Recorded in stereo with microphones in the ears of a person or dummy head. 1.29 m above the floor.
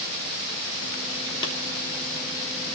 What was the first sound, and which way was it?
A clap, 25° left (ahead or behind).